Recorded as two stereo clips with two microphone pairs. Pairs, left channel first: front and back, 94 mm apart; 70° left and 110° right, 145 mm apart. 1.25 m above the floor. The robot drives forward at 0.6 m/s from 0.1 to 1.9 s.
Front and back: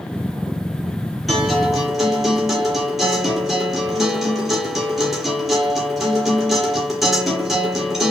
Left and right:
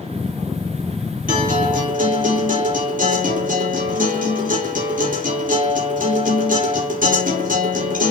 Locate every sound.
1.3 s a guitar: 90° right, 8 m; by 8.1 s 95° right, 8 m